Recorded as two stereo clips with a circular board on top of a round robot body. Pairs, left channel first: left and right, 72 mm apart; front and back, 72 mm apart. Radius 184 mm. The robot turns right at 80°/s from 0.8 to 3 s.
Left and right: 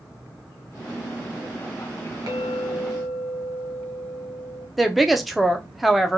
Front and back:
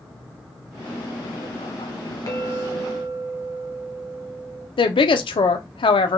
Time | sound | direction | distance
2.3 | a clink | 50° right | 1.1 m
4.8 | a woman speaking | straight ahead | 0.5 m